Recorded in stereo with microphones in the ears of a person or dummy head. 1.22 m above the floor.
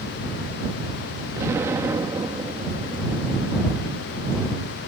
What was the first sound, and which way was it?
An explosion, 15° right (ahead or behind).